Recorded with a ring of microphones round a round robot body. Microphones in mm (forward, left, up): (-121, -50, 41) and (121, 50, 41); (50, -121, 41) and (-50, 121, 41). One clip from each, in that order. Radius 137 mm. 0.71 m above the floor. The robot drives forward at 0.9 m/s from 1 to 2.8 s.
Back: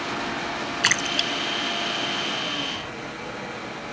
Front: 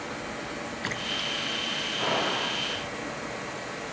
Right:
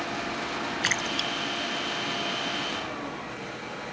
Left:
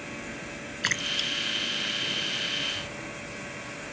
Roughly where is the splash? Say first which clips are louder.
Back 8 dB, left 1 dB; behind right.